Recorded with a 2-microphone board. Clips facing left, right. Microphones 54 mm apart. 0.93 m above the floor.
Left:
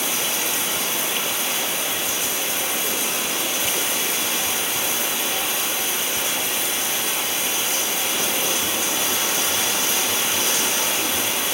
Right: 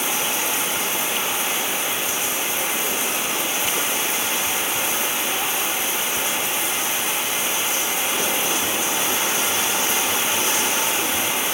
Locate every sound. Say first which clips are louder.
0.0 s running water: right 1 dB; 45° right (ahead or behind), 3 m